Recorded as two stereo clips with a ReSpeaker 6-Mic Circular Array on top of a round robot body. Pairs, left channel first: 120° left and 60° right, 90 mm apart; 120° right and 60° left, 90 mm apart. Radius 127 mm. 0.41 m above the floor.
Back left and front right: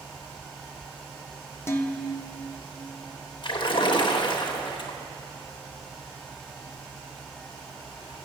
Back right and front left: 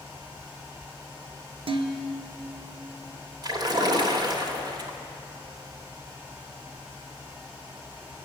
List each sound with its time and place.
1.7 s dishes clattering: 60° left, 1.1 m
3.4 s a splash: 95° left, 1.6 m